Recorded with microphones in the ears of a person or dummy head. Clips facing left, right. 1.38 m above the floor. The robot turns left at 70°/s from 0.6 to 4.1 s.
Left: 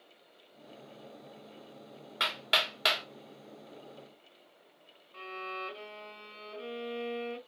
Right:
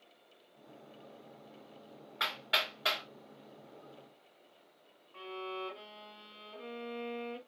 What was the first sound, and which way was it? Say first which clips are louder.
Hammering: left 3 dB; 40° left (ahead or behind).